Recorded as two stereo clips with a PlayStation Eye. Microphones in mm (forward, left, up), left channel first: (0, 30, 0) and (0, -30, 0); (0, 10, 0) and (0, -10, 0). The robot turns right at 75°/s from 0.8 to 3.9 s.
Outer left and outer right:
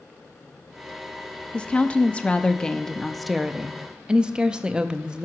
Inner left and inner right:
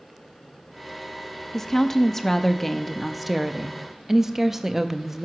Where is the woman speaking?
15° left (ahead or behind), 0.6 m; by 5.3 s 15° right (ahead or behind), 0.6 m.